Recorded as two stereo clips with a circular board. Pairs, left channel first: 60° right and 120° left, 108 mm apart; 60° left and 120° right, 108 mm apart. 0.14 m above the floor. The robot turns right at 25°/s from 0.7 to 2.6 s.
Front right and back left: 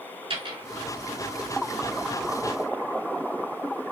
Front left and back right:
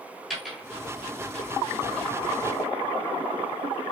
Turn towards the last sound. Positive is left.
turn(degrees=-160)